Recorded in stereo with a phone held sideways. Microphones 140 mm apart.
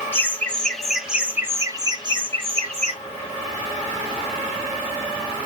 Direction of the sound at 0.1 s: 15° left (ahead or behind).